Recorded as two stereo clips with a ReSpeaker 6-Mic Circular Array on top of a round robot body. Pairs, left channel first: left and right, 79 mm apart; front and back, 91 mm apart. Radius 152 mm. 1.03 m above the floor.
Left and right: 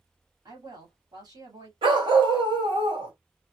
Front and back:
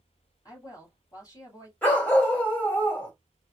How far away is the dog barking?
About 2 m.